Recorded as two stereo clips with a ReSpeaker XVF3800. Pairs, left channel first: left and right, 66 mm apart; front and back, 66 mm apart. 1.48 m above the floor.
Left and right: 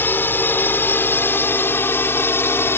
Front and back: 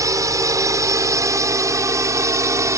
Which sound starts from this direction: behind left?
A drone, at 0.0 s.